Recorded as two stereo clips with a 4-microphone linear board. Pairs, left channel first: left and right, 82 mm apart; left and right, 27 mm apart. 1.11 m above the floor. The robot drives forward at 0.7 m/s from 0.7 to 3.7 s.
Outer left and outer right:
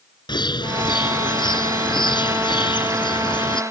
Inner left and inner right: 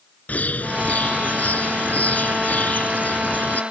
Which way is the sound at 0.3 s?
65° left (ahead or behind).